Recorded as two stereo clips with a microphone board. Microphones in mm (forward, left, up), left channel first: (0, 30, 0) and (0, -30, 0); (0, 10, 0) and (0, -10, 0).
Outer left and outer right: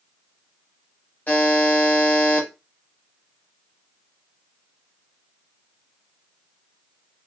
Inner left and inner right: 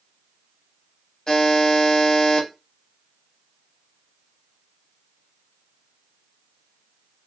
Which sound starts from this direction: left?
A buzzer, at 1.3 s.